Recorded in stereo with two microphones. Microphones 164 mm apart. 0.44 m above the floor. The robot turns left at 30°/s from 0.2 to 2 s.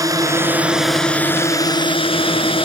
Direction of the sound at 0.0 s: 160° right.